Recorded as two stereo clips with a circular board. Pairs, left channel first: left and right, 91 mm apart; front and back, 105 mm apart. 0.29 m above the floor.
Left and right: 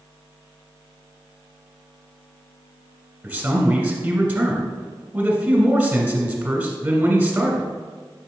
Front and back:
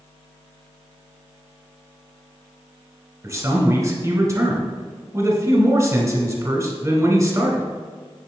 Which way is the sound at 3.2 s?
150° right.